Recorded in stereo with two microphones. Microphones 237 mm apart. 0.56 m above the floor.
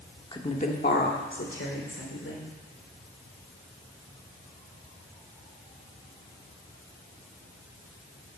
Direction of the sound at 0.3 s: 20° left (ahead or behind).